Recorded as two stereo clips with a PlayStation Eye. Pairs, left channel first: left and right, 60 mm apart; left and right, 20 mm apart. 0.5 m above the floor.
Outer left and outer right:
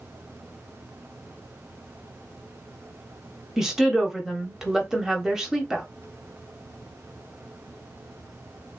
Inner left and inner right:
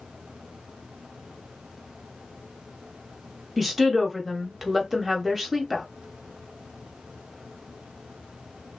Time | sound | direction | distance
3.6 | a woman speaking | 10° right (ahead or behind) | 1.0 m